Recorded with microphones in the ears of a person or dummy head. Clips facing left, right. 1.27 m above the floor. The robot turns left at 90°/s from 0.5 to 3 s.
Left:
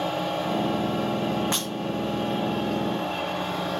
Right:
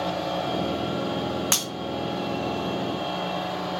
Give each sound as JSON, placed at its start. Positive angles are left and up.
{"t": 1.5, "sound": "breaking glass", "side_deg": -40, "distance_m": 2.0}